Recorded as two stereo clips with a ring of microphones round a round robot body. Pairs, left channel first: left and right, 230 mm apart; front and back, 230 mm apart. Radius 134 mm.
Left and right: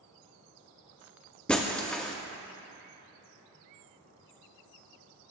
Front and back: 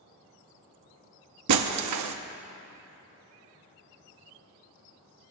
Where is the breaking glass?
175° left, 0.7 m.